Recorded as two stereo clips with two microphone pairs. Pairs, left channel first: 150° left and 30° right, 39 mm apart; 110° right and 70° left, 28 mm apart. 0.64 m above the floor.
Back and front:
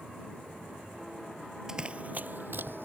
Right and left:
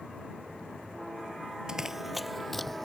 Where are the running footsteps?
30° left; by 2.9 s 25° right.